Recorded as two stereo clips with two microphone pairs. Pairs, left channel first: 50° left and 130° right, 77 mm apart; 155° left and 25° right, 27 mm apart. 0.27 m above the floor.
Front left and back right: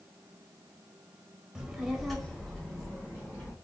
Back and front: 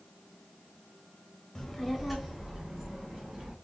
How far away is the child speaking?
About 0.9 m.